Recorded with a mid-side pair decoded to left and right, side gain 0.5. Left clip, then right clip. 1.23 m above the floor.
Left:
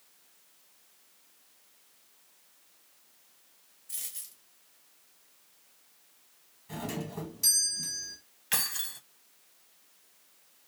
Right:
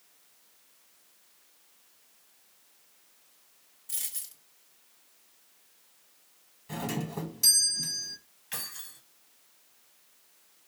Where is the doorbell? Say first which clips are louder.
Right 3 dB; 35° right, 1.2 m.